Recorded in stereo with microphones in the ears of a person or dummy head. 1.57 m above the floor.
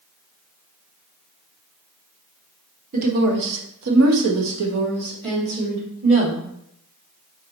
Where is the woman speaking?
45° right (ahead or behind), 0.9 m; by 6.5 s 50° right (ahead or behind), 2 m.